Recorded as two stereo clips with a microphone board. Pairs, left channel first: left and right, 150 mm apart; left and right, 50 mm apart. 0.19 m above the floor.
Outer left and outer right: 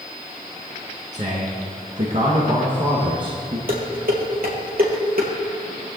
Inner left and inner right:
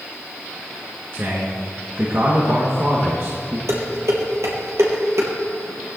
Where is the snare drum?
No snare drum in this recording.